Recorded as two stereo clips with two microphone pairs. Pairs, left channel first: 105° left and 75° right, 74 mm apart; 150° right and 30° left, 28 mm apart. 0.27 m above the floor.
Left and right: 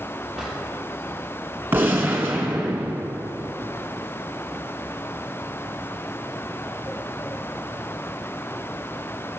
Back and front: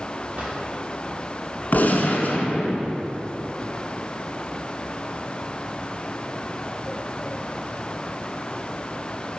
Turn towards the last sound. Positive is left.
turn(degrees=-135)